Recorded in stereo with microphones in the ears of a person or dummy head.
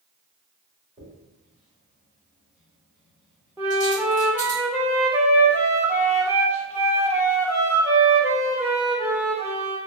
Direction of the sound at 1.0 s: 25° right (ahead or behind).